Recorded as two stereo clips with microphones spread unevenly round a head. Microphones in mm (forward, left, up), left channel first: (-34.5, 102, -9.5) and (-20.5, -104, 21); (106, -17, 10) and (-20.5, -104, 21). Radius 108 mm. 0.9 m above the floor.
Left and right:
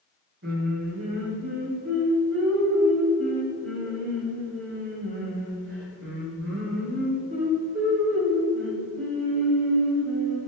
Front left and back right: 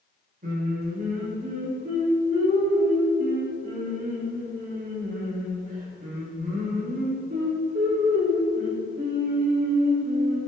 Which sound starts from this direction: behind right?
Singing, at 0.4 s.